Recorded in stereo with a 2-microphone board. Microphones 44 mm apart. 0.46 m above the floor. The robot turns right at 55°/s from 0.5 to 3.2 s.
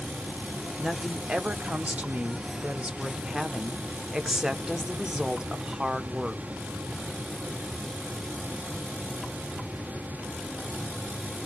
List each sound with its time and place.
0.8 s a woman speaking: 155° right, 0.8 m; by 6.4 s 25° right, 0.8 m